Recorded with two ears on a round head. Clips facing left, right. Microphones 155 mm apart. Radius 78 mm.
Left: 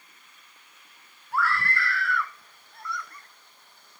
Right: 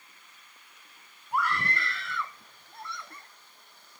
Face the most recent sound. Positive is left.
turn(degrees=-25)  # may be behind; listen again after turning